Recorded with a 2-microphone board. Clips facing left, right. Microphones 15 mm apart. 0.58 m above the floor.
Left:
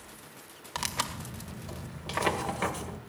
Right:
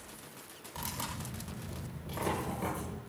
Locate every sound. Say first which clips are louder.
0.8 s tearing paper: left 7 dB; 65° left (ahead or behind), 1.9 m